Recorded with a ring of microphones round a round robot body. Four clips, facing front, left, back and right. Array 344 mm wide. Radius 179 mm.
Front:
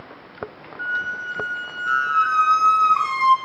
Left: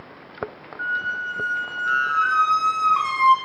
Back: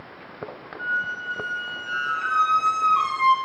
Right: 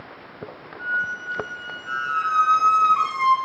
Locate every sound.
0.8 s a squeak: 75° left, 1.5 m